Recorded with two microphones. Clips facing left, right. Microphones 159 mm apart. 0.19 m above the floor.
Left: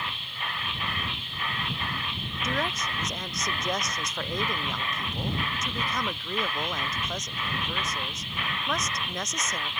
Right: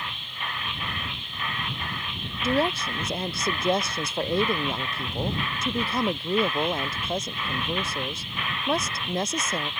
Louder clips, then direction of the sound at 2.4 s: Right 7 dB; 30° right (ahead or behind).